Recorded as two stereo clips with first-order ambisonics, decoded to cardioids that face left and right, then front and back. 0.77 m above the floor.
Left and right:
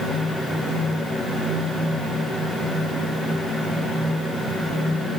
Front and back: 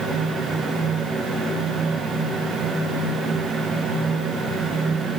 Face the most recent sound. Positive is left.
No sound to turn to.